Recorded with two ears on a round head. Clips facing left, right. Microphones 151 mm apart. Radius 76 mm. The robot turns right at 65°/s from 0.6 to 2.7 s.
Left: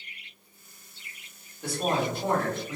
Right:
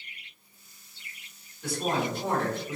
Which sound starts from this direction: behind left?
A woman speaking, at 1.6 s.